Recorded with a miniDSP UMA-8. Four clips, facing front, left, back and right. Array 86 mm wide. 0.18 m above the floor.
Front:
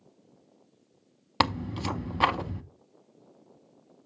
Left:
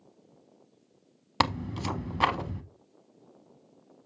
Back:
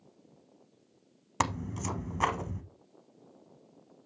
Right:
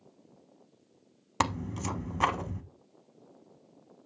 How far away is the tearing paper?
About 0.6 m.